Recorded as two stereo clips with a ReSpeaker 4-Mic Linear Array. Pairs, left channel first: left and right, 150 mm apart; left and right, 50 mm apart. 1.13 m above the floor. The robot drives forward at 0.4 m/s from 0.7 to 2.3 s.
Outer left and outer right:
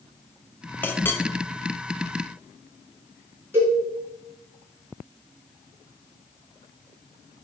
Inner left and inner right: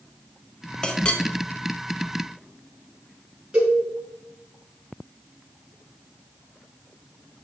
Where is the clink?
15° left (ahead or behind), 0.8 m.